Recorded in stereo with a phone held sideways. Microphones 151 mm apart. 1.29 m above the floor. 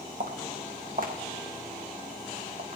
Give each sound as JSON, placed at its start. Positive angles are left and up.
{"t": 0.2, "sound": "footsteps", "side_deg": -65, "distance_m": 3.0}